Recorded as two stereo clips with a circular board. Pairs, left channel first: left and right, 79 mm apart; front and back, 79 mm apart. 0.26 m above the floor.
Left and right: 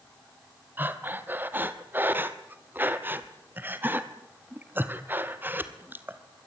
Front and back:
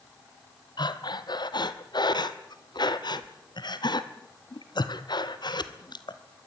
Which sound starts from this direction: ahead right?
Breathing, at 0.8 s.